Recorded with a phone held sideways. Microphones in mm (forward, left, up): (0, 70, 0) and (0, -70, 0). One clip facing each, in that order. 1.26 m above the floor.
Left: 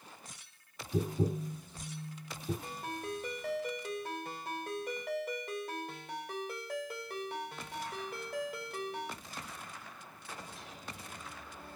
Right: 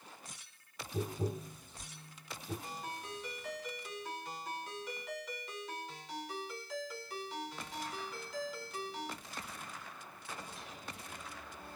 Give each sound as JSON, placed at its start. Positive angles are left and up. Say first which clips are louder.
{"t": 0.9, "sound": "tapping", "louder": "left 5 dB", "side_deg": 90, "distance_m": 2.0}
{"t": 2.6, "sound": "a ringtone", "louder": "left 4 dB", "side_deg": 60, "distance_m": 1.7}